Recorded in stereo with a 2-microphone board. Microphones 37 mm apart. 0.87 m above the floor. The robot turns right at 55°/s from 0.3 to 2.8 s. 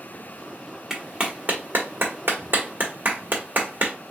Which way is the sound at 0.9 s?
15° right (ahead or behind).